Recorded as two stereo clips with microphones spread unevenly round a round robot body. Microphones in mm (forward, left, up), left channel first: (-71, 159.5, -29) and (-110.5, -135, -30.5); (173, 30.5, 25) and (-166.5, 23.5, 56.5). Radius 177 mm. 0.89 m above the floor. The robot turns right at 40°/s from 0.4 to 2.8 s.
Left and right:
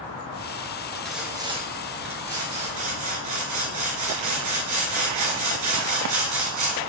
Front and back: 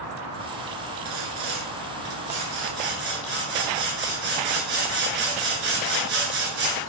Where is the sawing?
170° left, 2.5 m; by 6.8 s 120° right, 2.5 m.